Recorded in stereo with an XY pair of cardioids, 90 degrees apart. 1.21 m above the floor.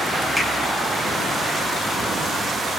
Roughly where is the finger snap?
Ahead.